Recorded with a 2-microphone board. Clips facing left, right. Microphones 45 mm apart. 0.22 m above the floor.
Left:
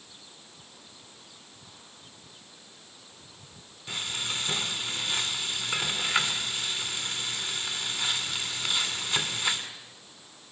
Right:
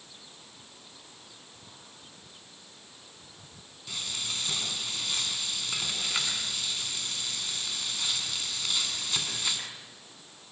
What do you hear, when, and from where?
3.9 s frying: 25° left (ahead or behind), 2 m